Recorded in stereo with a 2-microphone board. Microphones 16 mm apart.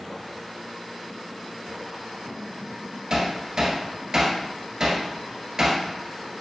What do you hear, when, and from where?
3.1 s hammering: 40° right (ahead or behind), 1.3 m